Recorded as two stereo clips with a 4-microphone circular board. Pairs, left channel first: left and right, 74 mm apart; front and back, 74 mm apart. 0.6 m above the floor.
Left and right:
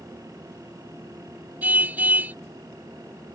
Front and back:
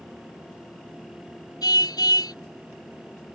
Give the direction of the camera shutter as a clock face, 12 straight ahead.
No camera shutter in this recording.